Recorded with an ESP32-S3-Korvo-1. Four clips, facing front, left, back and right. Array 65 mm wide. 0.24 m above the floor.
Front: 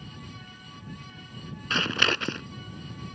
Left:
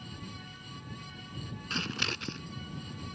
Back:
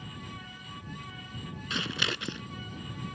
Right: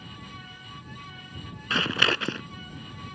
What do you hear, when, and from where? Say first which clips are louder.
1.7 s scissors: right 11 dB, front 7 dB; 60° right